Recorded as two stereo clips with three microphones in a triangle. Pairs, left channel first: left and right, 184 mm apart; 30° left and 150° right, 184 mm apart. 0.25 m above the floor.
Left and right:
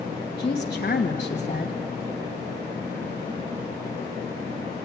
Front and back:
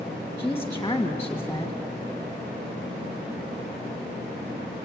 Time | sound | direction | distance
0.4 | a woman speaking | 100° left | 1.6 m